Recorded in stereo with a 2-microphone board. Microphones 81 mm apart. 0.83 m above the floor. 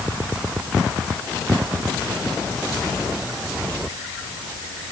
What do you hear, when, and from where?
Only background noise.